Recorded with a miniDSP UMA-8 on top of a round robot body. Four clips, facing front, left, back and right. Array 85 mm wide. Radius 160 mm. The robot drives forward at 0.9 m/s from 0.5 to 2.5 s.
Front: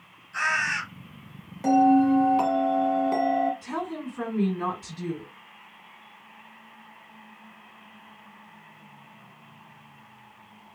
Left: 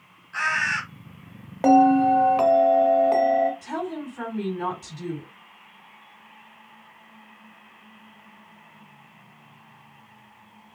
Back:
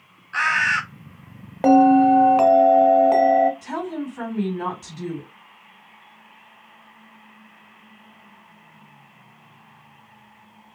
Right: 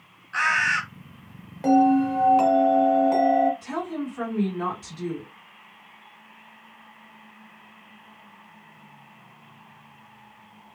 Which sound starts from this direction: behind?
A woman speaking, at 3.6 s.